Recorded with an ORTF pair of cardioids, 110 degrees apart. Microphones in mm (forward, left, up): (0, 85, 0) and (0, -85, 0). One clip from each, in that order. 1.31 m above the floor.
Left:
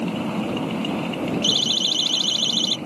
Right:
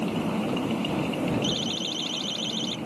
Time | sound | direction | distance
0.0 | a machine running | 20° left | ?
1.4 | a siren | 55° left | ?